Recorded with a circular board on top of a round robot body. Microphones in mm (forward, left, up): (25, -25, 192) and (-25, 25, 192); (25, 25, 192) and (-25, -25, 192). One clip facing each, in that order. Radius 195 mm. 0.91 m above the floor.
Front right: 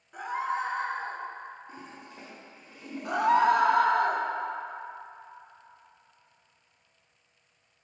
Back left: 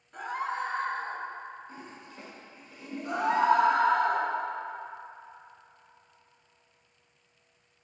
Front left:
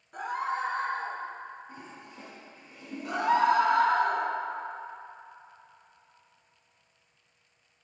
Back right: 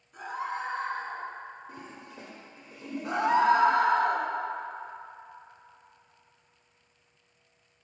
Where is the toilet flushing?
115° right, 1.1 m.